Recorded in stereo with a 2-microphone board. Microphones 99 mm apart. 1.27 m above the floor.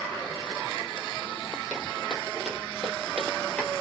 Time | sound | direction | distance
1.7 | footsteps | 10° right (ahead or behind) | 1.8 m